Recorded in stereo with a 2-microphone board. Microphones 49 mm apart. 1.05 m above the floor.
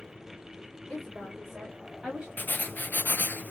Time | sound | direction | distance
0.9 | a woman speaking | 10° left (ahead or behind) | 2.5 m
2.4 | writing | 40° left (ahead or behind) | 0.6 m